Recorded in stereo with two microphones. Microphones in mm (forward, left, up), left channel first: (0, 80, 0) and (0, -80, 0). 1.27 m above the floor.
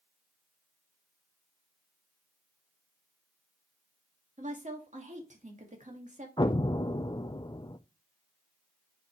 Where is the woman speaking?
50° right (ahead or behind), 2 m.